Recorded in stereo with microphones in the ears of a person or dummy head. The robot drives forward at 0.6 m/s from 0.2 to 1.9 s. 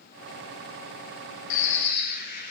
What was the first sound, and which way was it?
A bird, 60° left (ahead or behind).